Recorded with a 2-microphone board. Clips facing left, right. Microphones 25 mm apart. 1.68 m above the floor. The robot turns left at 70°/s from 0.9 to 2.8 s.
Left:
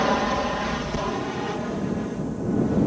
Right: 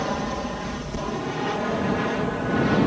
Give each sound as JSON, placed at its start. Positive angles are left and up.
{"t": 0.0, "sound": "an aircraft", "side_deg": 25}